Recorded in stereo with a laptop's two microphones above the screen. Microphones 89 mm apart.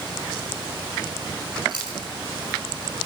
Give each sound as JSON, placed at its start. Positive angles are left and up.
{"t": 1.7, "sound": "chewing", "side_deg": -55, "distance_m": 5.5}